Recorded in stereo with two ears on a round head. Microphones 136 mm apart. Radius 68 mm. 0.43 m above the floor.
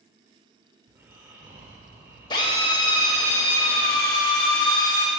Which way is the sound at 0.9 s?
15° right (ahead or behind).